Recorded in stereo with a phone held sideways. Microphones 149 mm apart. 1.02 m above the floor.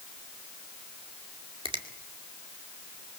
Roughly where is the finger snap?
Right.